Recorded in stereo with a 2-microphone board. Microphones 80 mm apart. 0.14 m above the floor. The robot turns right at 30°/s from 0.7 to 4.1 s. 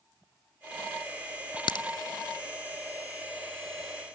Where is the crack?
70° left (ahead or behind), 0.5 m; by 1.9 s 75° left (ahead or behind), 0.5 m.